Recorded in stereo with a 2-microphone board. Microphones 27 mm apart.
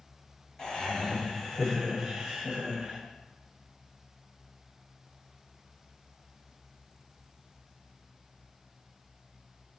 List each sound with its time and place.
0.6 s laughter: 35° left (ahead or behind), 1.2 m; by 3.0 s 30° right (ahead or behind), 1.2 m